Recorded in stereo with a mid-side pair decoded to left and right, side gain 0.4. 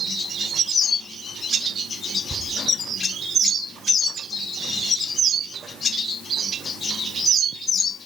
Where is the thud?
25° right, 4.5 m.